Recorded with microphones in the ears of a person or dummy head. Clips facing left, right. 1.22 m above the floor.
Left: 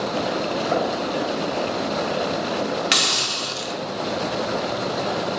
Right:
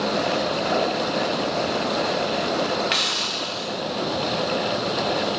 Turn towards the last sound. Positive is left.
turn(degrees=50)  # may be behind; listen again after turning